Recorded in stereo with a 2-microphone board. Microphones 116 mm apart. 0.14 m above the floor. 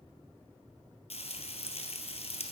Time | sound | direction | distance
1.1 | frying | 65° left (ahead or behind) | 0.9 m